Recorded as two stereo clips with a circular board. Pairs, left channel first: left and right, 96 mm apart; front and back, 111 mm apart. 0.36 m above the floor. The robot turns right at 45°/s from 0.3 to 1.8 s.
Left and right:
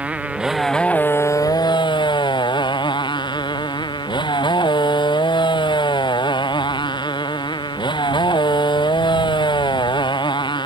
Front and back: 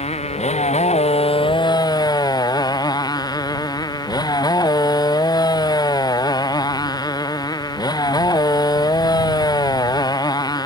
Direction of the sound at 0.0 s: 15° right.